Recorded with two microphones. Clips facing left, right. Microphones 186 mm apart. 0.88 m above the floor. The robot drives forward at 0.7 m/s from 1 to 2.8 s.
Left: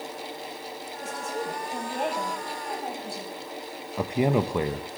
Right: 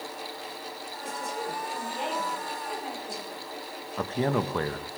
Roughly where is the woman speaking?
Left.